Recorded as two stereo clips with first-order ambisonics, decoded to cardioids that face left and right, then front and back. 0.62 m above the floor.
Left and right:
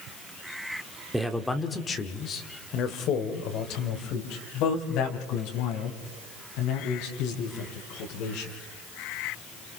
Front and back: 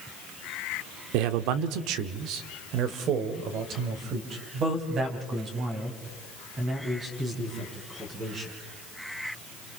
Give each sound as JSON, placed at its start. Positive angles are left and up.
{"t": 1.1, "sound": "a man speaking", "azimuth_deg": -175, "distance_m": 1.2}